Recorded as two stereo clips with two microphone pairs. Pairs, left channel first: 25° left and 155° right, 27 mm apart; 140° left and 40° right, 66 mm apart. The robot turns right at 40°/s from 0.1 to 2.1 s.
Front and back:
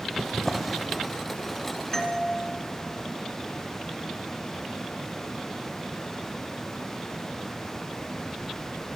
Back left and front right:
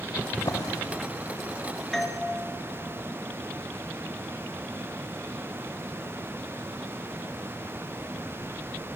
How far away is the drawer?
About 3 m.